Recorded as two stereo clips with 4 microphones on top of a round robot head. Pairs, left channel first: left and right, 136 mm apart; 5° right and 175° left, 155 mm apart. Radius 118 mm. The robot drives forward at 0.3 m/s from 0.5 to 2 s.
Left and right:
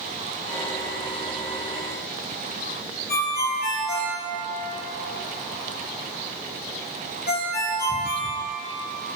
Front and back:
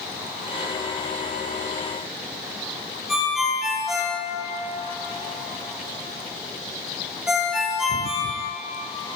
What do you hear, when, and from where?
3.1 s a ringtone: 90° left, 3.5 m